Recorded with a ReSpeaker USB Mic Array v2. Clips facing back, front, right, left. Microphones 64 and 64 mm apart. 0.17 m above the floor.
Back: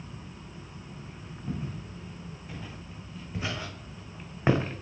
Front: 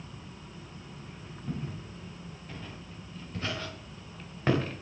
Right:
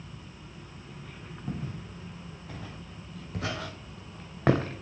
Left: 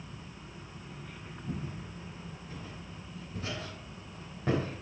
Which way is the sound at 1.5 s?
95° right.